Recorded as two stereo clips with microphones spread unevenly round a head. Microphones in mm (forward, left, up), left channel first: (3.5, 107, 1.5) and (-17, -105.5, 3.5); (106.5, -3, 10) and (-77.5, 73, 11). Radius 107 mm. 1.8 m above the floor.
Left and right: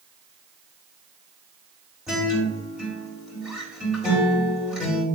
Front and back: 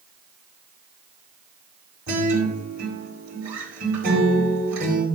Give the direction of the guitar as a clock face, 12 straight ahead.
6 o'clock.